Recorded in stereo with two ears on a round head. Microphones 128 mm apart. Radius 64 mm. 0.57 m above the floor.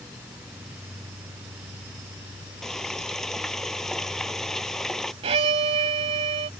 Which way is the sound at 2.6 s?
5° left (ahead or behind).